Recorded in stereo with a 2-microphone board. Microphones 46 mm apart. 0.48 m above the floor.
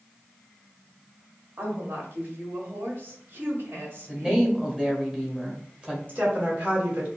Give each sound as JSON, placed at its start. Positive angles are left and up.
{"t": 1.6, "sound": "a woman speaking", "side_deg": -50, "distance_m": 1.6}
{"t": 4.1, "sound": "a woman speaking", "side_deg": -15, "distance_m": 1.4}
{"t": 6.1, "sound": "a woman speaking", "side_deg": -40, "distance_m": 2.0}